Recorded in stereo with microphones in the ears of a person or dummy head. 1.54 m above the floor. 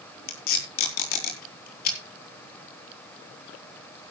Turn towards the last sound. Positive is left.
turn(degrees=55)  # may be behind; listen again after turning